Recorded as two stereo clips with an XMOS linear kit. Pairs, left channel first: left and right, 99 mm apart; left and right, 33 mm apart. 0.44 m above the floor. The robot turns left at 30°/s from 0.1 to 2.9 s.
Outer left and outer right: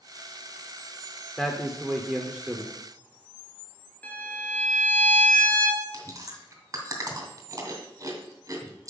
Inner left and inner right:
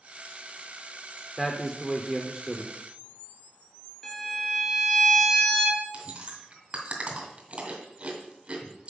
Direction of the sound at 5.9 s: 30° right (ahead or behind).